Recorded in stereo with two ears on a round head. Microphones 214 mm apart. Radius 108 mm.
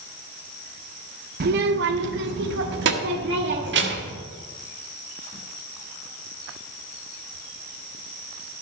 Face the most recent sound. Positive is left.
turn(degrees=-45)  # may be behind; listen again after turning